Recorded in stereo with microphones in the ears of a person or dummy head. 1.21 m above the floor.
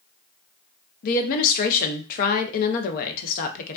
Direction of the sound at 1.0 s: 50° left (ahead or behind).